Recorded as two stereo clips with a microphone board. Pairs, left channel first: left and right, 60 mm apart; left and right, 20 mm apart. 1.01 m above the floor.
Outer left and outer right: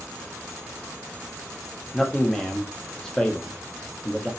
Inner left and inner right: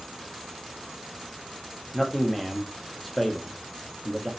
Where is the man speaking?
10° left (ahead or behind), 1.0 m.